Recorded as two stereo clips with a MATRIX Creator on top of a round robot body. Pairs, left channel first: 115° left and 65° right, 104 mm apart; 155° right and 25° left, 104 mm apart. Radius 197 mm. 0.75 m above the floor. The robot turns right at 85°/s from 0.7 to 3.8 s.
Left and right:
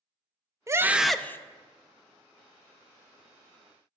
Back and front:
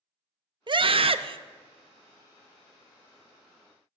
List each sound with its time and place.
0.7 s a scream: 10° right, 0.6 m; by 1.4 s 50° left, 0.6 m